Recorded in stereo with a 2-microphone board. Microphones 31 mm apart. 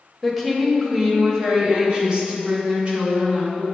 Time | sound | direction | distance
0.2 | a woman speaking | centre (ahead or behind) | 1.1 m